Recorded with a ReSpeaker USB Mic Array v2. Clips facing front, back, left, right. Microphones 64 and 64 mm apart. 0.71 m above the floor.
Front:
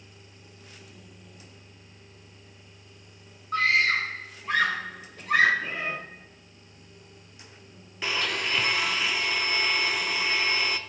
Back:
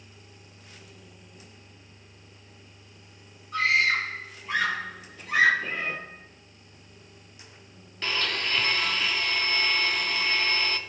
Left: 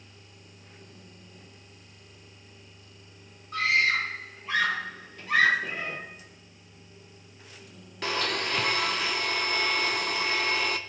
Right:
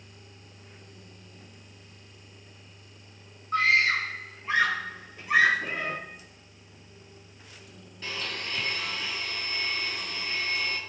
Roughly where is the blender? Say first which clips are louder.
Front 1 dB, left 6 dB; left.